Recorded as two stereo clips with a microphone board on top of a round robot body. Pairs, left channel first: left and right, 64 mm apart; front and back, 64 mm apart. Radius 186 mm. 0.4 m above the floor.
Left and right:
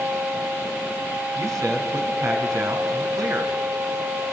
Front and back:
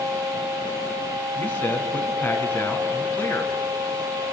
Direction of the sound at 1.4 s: 65° right.